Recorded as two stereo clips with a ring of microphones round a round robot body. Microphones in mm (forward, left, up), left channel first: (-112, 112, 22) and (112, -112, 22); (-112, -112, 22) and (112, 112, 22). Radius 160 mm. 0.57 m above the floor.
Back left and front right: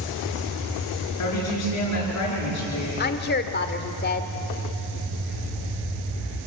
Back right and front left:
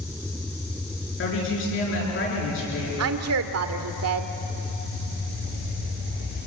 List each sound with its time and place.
1.2 s a woman speaking: 175° left, 10 m
3.0 s a woman speaking: 80° left, 1.7 m